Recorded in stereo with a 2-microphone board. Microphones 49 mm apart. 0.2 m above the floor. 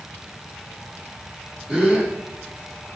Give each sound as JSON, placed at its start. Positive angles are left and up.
{"t": 1.7, "sound": "a gasp", "side_deg": -10, "distance_m": 6.5}